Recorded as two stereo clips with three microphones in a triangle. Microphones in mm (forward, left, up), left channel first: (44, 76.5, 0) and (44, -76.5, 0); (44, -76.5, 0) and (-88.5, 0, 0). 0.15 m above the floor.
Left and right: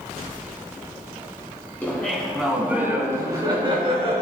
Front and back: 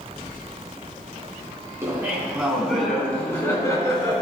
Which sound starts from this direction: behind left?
Laughter, at 1.8 s.